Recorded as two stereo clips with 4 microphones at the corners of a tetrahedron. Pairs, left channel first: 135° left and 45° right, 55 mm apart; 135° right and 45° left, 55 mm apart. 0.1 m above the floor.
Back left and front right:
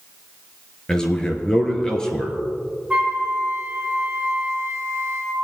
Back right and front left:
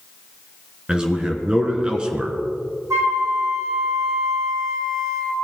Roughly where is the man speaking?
Left.